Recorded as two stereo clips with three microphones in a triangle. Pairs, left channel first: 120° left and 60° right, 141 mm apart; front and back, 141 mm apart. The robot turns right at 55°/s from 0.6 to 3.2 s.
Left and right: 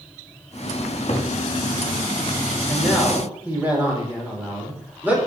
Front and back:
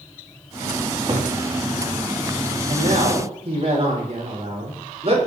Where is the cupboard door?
125° left, 3.5 m; by 1.3 s 150° left, 3.5 m.